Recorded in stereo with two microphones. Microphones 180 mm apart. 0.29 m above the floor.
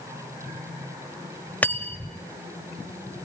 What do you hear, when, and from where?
1.6 s cutlery clinking: 10° left (ahead or behind), 0.7 m